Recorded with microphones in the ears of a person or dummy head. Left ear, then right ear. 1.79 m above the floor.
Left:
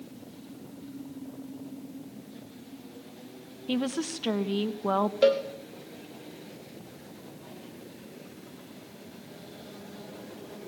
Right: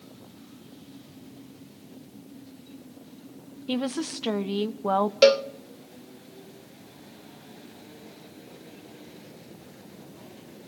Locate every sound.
3.7 s a woman speaking: 10° right (ahead or behind), 0.6 m
5.2 s a cowbell: 45° right (ahead or behind), 1.0 m